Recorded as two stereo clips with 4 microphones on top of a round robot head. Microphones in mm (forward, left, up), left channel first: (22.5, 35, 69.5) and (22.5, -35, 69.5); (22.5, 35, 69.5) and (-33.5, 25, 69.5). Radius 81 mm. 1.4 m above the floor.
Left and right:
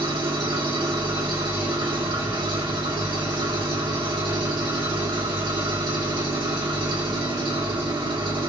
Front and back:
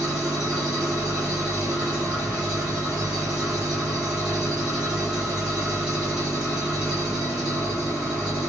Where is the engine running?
90° right, 1.2 m.